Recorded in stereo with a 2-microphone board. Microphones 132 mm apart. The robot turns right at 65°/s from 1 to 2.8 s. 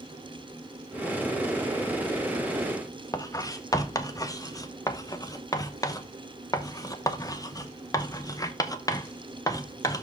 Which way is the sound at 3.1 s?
25° left (ahead or behind).